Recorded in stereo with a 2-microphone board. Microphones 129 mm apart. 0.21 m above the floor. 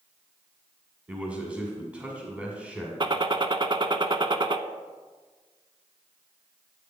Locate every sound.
1.1 s a man speaking: 10° right (ahead or behind), 1.9 m
3.0 s a gunshot: 40° right (ahead or behind), 0.6 m